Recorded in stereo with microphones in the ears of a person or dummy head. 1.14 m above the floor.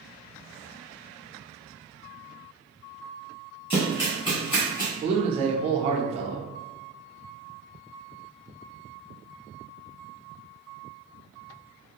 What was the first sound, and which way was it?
Running footsteps, 10° left (ahead or behind).